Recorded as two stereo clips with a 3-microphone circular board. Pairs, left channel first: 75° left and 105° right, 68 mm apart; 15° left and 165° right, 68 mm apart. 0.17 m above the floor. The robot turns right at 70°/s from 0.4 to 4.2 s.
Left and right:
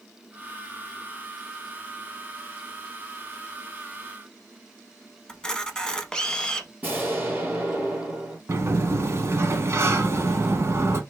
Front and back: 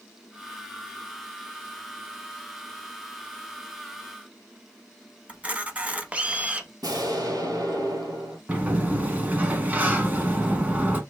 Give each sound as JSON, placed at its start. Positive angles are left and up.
{"t": 5.3, "sound": "a camera shutter", "azimuth_deg": 145, "distance_m": 0.5}
{"t": 6.8, "sound": "an explosion", "azimuth_deg": -165, "distance_m": 1.2}
{"t": 8.5, "sound": "a sliding door", "azimuth_deg": -115, "distance_m": 0.6}